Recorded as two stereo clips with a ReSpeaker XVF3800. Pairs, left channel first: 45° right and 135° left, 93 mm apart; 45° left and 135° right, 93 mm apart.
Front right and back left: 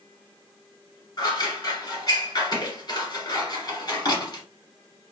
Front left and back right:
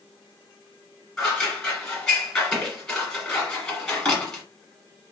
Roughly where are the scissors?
Ahead right.